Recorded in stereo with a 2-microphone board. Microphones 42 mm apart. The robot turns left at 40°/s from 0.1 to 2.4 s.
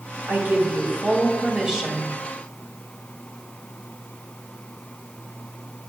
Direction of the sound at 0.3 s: 110° right.